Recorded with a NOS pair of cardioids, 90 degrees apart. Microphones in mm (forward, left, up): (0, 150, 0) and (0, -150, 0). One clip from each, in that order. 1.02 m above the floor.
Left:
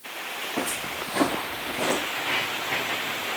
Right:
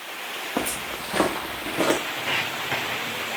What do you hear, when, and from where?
0.6 s footsteps: 60° right, 5 m; by 2.0 s 50° right, 4.5 m
2.2 s footsteps: 45° right, 4.5 m